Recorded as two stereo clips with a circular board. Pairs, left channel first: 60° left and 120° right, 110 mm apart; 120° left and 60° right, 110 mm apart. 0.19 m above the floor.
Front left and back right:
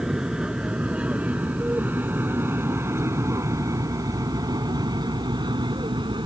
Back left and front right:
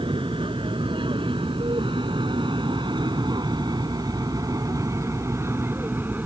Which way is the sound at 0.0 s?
35° right.